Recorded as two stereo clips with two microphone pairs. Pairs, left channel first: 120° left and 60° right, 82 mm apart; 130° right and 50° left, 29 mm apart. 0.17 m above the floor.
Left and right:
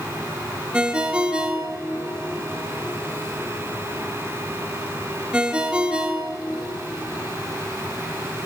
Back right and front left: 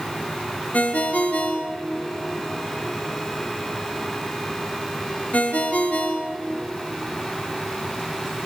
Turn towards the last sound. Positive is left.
turn(degrees=-140)